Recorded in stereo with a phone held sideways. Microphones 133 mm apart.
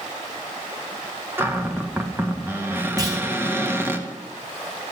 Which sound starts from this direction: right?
A clunk, at 3.0 s.